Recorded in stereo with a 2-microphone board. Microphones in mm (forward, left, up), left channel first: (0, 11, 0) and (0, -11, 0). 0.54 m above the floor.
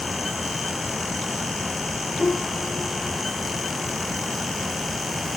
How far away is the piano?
About 2 m.